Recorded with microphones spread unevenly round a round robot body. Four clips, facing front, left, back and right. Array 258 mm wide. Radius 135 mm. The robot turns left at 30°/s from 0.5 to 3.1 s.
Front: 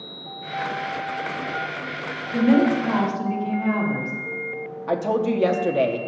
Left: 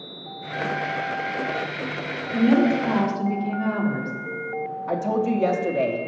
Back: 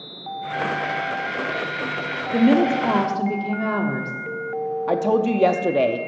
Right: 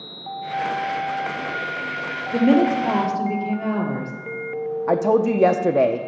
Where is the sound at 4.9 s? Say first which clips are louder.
Right 5 dB, back 2 dB; 130° right, 0.6 m.